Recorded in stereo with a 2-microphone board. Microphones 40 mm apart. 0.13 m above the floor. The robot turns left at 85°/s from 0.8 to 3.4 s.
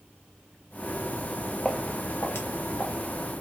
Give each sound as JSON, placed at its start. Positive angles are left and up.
{"t": 1.6, "sound": "footsteps", "side_deg": 5, "distance_m": 0.6}